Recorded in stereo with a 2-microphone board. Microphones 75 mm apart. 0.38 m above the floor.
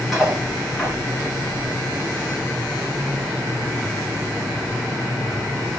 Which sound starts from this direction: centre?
Cutlery clinking, at 0.1 s.